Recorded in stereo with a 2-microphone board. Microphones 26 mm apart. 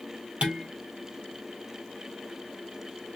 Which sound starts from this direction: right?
Dishes clattering, at 0.4 s.